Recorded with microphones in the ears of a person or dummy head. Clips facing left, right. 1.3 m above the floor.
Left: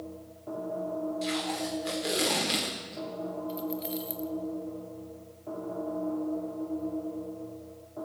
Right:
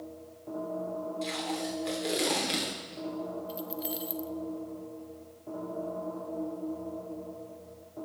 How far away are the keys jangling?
About 0.6 m.